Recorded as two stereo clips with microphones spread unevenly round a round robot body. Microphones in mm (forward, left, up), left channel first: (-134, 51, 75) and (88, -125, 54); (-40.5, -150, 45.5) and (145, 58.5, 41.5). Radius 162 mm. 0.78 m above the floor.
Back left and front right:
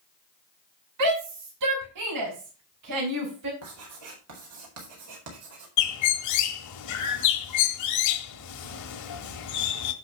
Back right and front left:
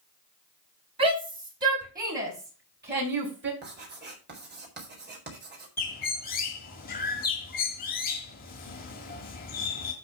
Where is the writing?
5° right, 4 m.